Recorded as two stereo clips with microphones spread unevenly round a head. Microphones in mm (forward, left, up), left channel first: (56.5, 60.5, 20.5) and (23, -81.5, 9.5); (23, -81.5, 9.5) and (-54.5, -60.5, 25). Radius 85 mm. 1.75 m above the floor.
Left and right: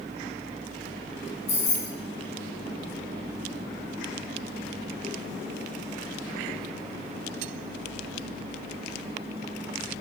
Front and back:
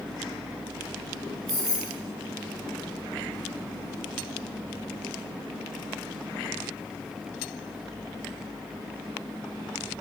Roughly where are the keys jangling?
Behind left.